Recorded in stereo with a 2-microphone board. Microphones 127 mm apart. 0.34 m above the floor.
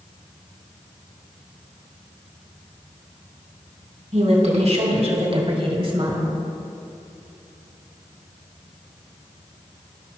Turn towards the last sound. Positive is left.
turn(degrees=-35)  # may be behind; listen again after turning